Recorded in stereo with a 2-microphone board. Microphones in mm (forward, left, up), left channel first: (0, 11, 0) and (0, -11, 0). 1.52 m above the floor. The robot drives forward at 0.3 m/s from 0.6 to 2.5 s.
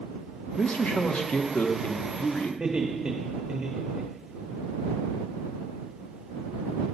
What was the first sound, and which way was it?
A man speaking, 65° left (ahead or behind).